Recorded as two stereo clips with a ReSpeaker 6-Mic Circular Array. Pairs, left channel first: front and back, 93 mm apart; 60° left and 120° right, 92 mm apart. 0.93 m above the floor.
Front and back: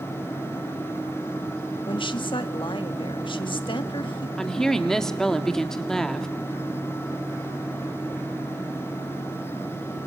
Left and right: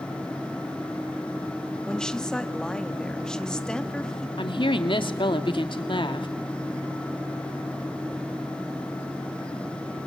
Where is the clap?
I don't hear a clap.